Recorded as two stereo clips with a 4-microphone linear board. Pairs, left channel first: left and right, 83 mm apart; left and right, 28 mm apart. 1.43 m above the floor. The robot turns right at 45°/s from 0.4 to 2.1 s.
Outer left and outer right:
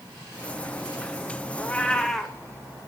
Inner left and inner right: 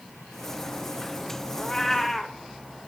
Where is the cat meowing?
20° left (ahead or behind), 0.7 m; by 2.4 s 5° left (ahead or behind), 0.7 m.